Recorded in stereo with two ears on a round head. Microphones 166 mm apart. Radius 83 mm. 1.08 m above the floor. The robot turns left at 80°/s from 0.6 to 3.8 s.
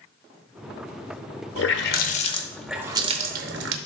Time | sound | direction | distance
1.6 | a running tap | 90° left | 0.8 m